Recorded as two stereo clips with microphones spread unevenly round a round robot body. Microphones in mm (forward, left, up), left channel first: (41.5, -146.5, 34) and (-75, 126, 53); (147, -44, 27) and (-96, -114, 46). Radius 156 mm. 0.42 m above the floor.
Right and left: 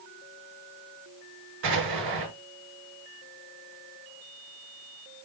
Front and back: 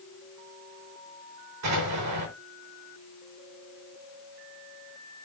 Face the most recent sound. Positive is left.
turn(degrees=160)